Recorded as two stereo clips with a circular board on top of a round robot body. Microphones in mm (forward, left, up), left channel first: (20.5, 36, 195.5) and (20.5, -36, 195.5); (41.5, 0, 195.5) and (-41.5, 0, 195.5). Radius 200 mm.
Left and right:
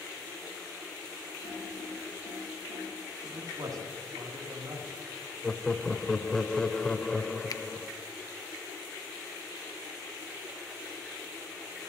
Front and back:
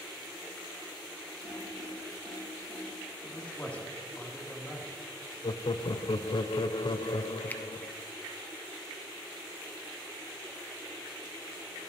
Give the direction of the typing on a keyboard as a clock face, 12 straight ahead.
8 o'clock.